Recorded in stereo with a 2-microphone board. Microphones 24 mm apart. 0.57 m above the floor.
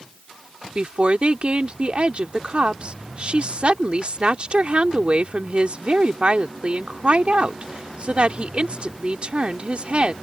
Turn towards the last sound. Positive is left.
turn(degrees=-50)  # may be behind; listen again after turning